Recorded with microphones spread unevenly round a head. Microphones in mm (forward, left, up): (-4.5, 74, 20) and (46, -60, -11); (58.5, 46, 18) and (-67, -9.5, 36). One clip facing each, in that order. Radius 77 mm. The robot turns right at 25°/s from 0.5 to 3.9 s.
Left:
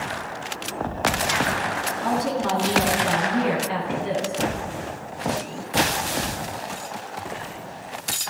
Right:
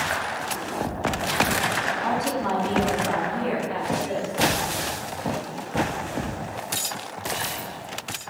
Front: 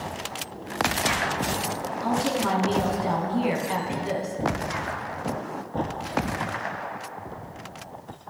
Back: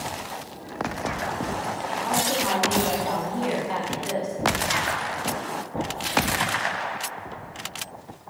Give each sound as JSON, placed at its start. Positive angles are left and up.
{"t": 2.0, "sound": "a woman speaking", "azimuth_deg": 60, "distance_m": 10.0}